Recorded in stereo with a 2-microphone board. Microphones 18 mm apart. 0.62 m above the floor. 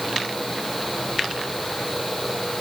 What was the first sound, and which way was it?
Only background noise.